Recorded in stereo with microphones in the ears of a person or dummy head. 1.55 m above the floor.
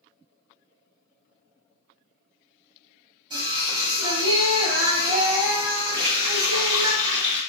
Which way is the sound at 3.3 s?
25° right (ahead or behind).